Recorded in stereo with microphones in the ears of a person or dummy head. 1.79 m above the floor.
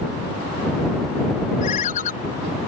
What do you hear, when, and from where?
1.6 s a ringtone: 40° left (ahead or behind)